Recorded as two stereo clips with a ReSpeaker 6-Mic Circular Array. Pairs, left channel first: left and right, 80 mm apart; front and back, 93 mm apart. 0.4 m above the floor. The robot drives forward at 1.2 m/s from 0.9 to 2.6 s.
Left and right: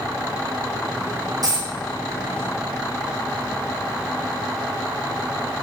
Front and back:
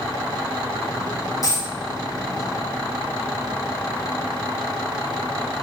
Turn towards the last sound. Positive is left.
turn(degrees=-100)